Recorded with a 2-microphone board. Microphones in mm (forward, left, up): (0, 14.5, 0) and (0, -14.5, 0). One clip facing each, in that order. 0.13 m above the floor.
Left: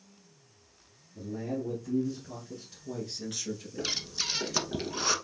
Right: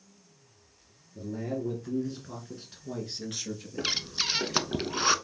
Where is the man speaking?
30° right (ahead or behind), 1.8 m; by 3.9 s 5° right (ahead or behind), 2.0 m.